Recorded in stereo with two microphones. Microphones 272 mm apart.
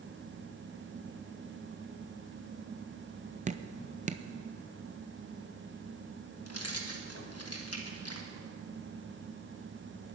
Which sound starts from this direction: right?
Dripping, at 3.5 s.